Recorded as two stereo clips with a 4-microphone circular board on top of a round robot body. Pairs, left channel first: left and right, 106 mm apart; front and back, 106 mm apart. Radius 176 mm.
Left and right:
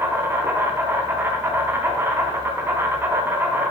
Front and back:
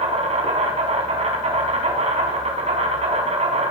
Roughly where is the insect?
Behind.